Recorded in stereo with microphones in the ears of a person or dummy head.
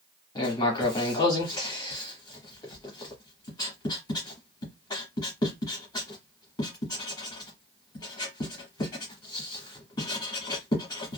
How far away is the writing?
About 1.1 m.